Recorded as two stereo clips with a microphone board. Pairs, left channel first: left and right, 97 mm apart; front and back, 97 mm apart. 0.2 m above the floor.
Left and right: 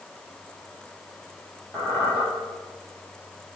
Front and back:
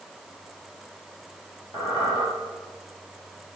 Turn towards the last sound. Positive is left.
turn(degrees=20)